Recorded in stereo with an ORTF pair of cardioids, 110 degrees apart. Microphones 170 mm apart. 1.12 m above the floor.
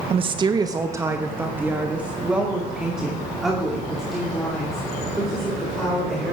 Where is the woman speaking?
40° right, 0.6 m; by 6.3 s straight ahead, 4 m.